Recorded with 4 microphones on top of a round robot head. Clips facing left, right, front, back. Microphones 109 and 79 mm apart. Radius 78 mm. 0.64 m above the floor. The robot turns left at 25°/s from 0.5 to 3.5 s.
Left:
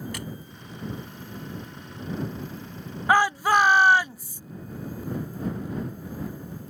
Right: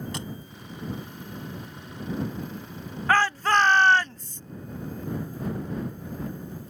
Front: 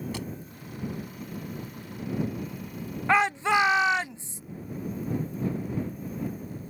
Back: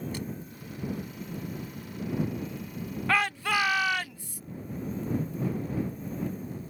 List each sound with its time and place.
0.1 s a thud: 25° right
3.1 s a shout: 35° left; by 4.4 s 25° left